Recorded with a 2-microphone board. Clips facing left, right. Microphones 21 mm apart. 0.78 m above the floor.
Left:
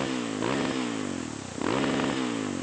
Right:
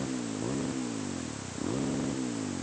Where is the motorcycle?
60° left (ahead or behind); by 2.6 s 70° left (ahead or behind).